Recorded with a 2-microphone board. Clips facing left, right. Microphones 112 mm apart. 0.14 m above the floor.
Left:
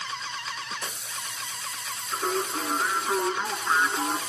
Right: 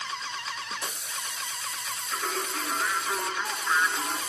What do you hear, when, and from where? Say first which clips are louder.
2.1 s singing: left 5 dB; 25° left (ahead or behind), 1.9 m